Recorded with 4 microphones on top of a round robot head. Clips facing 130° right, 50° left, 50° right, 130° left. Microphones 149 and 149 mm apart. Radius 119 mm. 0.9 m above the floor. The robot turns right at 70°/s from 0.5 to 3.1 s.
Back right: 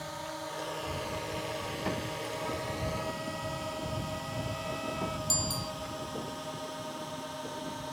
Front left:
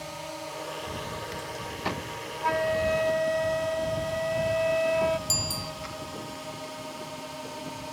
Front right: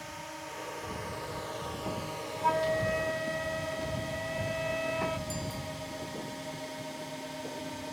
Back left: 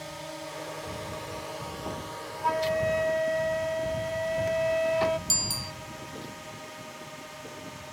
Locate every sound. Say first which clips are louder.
0.0 s a drone: front left 2 dB, back left 4 dB; 120° left; by 7.9 s 25° right
2.4 s a flute: front left 14 dB, back left 2 dB; 30° left; by 5.2 s 80° left
5.3 s a bicycle bell: front left 1 dB, front right 2 dB; 130° left